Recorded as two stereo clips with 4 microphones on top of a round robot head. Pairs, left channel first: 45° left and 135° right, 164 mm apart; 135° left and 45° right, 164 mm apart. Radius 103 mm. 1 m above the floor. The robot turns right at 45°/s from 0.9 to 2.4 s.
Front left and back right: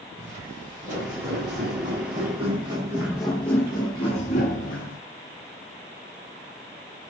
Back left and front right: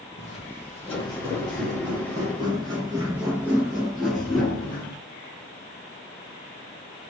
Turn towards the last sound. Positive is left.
turn(degrees=55)